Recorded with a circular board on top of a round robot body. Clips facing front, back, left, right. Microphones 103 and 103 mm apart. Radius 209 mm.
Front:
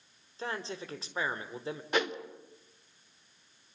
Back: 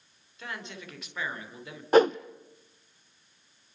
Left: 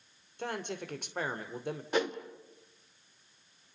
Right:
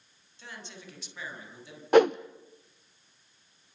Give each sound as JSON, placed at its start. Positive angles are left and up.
{"t": 0.4, "sound": "a man speaking", "azimuth_deg": 60, "distance_m": 3.0}
{"t": 1.9, "sound": "a whoosh", "azimuth_deg": -125, "distance_m": 0.6}